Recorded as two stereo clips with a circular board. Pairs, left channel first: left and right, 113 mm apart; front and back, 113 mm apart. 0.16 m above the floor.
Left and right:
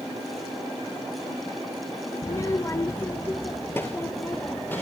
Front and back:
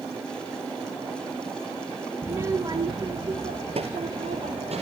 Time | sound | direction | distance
2.2 | a child speaking | 120° left | 0.7 m